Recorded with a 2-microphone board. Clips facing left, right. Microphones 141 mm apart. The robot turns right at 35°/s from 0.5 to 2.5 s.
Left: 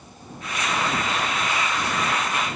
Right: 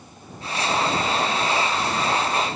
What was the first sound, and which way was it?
Only background noise.